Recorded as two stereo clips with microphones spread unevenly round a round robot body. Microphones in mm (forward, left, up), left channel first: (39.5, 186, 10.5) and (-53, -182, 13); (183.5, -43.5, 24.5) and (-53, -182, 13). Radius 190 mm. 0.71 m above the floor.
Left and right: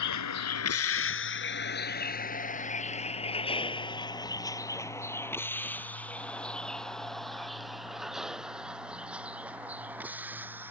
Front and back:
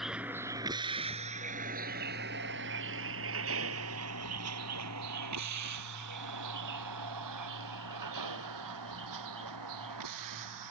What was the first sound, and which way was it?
A vehicle, 120° left.